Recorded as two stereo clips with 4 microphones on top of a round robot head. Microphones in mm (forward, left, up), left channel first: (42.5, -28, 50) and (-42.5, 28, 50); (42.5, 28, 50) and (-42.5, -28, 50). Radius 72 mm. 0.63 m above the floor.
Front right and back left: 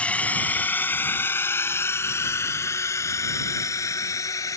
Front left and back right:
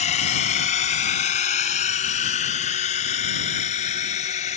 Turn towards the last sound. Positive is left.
turn(degrees=25)